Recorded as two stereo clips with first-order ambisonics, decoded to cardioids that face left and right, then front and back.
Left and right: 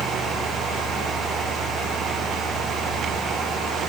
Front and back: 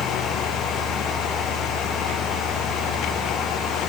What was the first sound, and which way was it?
Only background noise.